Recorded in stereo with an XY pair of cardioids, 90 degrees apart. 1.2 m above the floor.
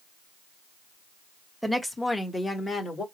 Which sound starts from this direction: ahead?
A woman speaking, at 1.6 s.